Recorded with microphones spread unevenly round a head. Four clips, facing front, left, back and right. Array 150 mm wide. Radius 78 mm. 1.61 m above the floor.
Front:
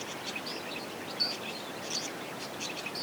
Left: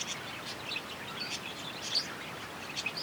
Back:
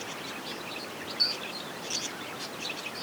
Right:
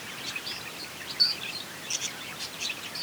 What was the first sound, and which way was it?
Only background noise.